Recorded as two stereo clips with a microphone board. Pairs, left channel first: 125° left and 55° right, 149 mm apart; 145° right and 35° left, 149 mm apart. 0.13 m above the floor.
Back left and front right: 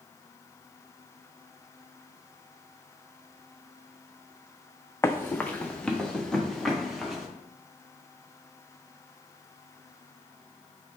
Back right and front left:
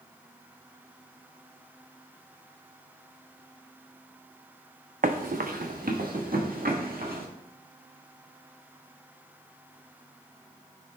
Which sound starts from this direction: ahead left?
Running footsteps, at 5.0 s.